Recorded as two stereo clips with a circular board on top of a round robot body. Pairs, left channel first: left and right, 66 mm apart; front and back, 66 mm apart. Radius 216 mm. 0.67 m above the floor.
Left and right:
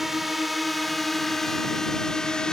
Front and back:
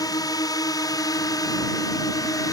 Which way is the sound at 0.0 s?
5° right.